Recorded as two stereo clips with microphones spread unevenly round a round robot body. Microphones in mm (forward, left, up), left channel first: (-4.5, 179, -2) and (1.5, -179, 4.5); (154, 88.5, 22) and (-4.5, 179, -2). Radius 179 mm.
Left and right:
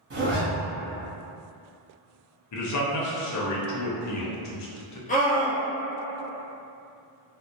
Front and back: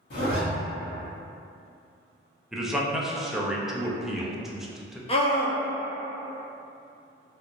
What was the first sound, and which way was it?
A zipper, 30° right.